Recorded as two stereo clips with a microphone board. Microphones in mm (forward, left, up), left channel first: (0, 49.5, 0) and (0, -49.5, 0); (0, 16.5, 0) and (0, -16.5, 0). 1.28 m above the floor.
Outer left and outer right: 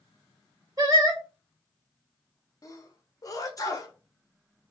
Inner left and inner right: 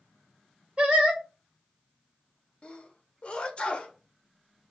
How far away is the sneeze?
About 0.9 m.